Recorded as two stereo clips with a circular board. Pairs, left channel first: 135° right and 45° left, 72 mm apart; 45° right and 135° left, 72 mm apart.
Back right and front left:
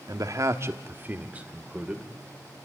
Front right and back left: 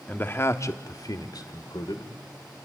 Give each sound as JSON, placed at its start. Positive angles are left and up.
{"t": 0.1, "sound": "a man speaking", "azimuth_deg": 20, "distance_m": 1.2}